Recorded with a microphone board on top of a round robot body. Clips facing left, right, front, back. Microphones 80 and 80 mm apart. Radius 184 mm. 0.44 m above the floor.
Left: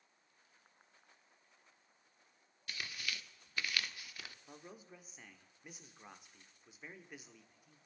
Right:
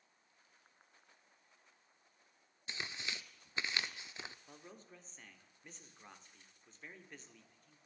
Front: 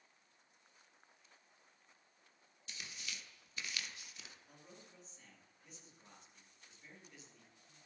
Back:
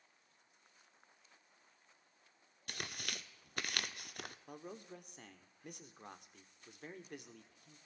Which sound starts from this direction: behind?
A man speaking, at 4.5 s.